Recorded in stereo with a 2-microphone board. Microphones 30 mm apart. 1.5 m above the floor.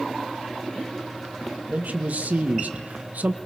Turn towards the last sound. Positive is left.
turn(degrees=-70)  # may be behind; listen again after turning